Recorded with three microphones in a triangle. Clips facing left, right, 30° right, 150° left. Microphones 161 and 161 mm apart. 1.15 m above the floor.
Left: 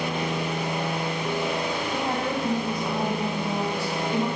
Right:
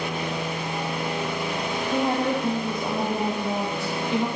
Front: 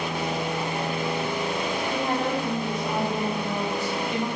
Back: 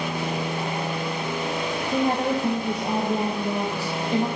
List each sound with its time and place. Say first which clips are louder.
1.9 s a woman speaking: right 7 dB, back 6 dB; 155° right, 0.8 m